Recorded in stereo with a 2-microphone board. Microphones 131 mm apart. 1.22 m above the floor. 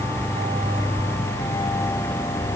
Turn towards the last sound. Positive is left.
No sound to turn to.